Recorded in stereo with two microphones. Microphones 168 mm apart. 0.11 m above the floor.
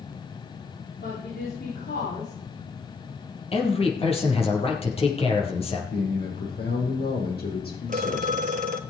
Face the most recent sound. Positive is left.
turn(degrees=-55)  # may be behind; listen again after turning